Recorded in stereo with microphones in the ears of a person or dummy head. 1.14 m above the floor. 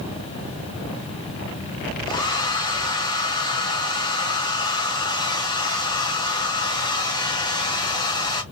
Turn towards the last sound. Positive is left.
turn(degrees=20)  # may be behind; listen again after turning